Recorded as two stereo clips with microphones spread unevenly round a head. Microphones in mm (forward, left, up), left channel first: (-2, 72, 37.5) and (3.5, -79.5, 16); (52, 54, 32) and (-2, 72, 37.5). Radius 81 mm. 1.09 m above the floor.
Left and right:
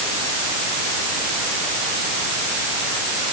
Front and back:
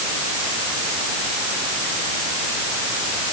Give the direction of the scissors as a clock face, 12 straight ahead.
No scissors in this recording.